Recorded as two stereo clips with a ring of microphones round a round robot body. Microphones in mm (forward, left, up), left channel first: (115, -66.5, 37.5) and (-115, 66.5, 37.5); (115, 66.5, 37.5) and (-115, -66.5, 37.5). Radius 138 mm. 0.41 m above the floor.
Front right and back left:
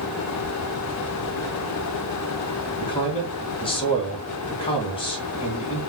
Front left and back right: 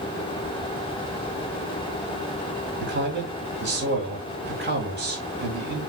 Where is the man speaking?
100° right, 2.5 m.